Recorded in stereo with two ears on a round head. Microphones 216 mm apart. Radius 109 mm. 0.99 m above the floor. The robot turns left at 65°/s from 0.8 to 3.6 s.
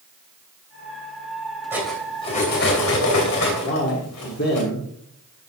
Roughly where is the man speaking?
Left.